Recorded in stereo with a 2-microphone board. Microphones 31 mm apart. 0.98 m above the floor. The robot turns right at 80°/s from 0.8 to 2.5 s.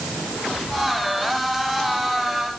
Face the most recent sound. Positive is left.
No sound to turn to.